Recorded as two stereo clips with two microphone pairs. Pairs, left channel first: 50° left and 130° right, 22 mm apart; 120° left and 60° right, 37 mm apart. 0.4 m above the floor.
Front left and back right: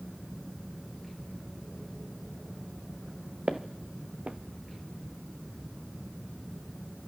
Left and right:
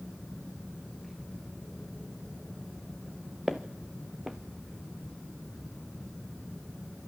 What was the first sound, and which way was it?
Footsteps, 135° right.